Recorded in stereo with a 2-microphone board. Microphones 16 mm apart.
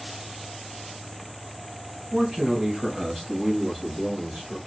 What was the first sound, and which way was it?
A man speaking, 50° right (ahead or behind).